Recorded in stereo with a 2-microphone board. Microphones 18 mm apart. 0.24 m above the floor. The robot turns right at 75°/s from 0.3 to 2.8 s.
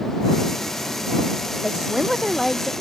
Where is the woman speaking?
60° right; by 2.7 s 25° left.